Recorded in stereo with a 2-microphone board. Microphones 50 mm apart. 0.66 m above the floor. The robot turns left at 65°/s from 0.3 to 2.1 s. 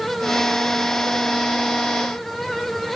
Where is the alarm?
I don't hear an alarm.